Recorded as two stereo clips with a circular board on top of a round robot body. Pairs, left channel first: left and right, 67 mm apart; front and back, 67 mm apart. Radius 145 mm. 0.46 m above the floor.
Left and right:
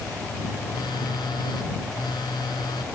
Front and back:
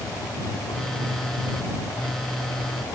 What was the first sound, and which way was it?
A phone buzzing, 85° left.